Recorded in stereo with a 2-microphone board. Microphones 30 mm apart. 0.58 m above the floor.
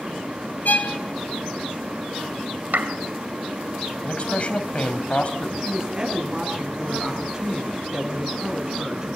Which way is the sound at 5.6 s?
20° right (ahead or behind).